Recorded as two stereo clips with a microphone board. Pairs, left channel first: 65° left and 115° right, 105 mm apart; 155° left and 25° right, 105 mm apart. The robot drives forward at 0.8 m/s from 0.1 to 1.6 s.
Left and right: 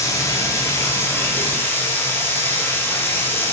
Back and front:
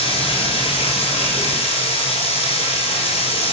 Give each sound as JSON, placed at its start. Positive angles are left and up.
{"t": 0.0, "sound": "running water", "azimuth_deg": 130, "distance_m": 6.5}